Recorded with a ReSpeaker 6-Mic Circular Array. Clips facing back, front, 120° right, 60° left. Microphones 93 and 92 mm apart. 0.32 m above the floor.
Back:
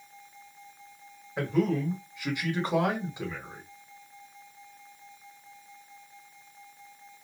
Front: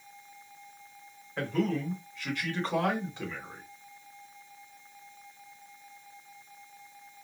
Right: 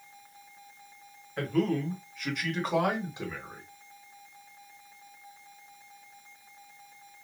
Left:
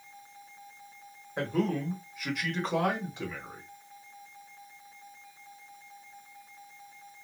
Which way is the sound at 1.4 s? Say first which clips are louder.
Back 3 dB, right 2 dB; 110° left.